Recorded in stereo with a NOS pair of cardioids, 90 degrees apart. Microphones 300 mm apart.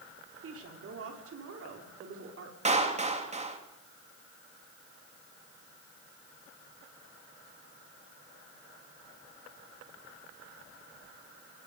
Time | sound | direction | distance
0.4 | a woman speaking | 50° right | 5 m
2.6 | a clap | 20° right | 3 m